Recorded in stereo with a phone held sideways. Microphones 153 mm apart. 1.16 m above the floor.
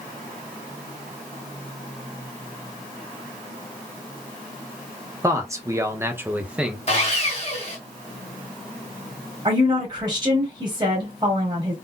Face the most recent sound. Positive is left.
turn(degrees=-30)  # may be behind; listen again after turning